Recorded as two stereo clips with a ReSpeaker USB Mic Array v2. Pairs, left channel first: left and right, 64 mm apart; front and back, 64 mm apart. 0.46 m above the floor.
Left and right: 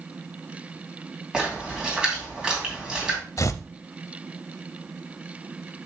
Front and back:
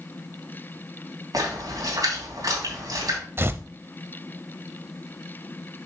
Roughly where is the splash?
Behind.